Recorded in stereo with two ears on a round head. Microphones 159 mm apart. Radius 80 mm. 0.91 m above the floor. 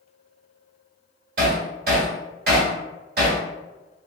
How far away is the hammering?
About 1.5 m.